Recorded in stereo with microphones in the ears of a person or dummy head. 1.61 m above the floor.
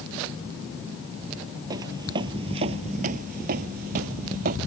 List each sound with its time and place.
1.7 s footsteps: 25° right (ahead or behind); by 4.6 s 50° right (ahead or behind)